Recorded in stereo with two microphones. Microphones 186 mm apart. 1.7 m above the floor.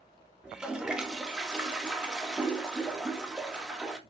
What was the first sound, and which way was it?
A toilet flushing, 5° right (ahead or behind).